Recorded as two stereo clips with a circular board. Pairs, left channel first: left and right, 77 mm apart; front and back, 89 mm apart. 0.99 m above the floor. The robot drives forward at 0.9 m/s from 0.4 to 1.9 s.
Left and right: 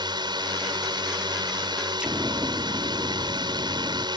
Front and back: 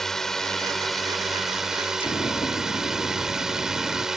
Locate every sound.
0.0 s a drone: 85° right; by 4.2 s 95° right
2.0 s an explosion: 15° right